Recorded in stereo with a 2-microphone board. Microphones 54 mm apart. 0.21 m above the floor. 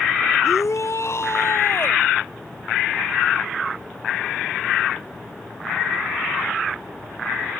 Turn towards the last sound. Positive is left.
turn(degrees=50)  # may be behind; listen again after turning